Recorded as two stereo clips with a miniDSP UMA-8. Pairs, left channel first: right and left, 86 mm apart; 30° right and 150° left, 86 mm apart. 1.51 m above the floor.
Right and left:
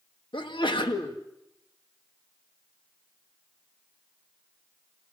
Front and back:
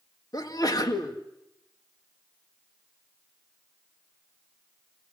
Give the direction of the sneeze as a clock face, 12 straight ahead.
2 o'clock.